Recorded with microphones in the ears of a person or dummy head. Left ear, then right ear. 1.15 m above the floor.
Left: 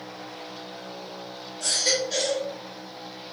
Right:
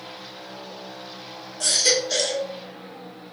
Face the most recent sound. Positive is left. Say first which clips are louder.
# right 4 dB
turn(degrees=-80)